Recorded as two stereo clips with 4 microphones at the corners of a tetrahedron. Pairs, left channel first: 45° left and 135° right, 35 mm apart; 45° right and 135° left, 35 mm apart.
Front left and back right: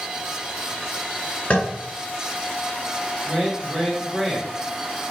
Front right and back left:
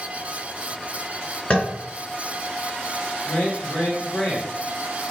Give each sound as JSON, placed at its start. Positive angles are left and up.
{"t": 1.5, "sound": "tapping", "azimuth_deg": 5, "distance_m": 2.0}
{"t": 3.2, "sound": "a man speaking", "azimuth_deg": -65, "distance_m": 1.9}